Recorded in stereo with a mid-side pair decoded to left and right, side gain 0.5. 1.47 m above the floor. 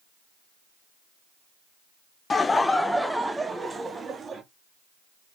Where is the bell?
I don't hear a bell.